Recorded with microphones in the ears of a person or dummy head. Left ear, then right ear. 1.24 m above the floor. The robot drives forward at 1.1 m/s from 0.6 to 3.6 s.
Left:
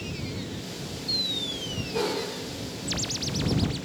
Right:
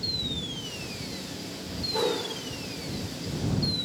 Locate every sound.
1.9 s a whoosh: 35° right (ahead or behind), 2 m; by 2.2 s 30° right (ahead or behind), 2.5 m